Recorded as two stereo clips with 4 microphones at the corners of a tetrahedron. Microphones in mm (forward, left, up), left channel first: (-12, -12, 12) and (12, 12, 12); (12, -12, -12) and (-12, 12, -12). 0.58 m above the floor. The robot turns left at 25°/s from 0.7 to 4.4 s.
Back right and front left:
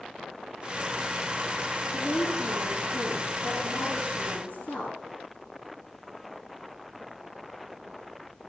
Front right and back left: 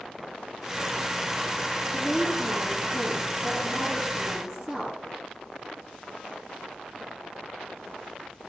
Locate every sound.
1.9 s a woman speaking: 85° right, 8.5 m; by 5.0 s 145° right, 8.5 m